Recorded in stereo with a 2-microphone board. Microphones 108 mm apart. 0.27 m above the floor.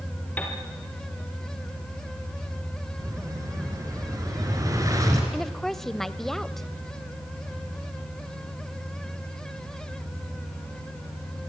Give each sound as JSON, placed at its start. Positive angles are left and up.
{"t": 0.4, "sound": "a piano", "side_deg": 15, "distance_m": 4.0}
{"t": 3.0, "sound": "an explosion", "side_deg": -30, "distance_m": 4.5}
{"t": 5.3, "sound": "a woman speaking", "side_deg": 5, "distance_m": 0.9}